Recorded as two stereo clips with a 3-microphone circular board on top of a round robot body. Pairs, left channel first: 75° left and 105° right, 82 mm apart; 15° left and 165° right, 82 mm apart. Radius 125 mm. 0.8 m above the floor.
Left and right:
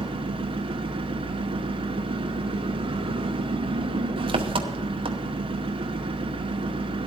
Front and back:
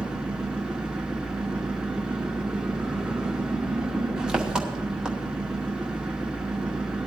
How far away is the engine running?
About 0.9 m.